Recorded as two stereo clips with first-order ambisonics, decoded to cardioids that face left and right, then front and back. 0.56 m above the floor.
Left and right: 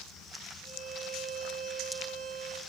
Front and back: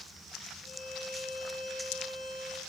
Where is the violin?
105° right, 3.5 m.